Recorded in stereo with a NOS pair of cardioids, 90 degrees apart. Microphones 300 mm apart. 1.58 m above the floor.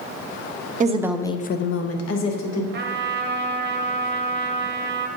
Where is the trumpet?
35° right, 0.8 m.